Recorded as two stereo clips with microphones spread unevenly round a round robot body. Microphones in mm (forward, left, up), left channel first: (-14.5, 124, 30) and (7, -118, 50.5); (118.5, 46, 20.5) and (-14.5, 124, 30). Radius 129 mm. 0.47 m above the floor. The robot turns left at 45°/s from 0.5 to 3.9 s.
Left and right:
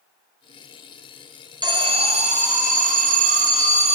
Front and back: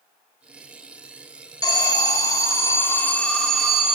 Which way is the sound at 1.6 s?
20° right.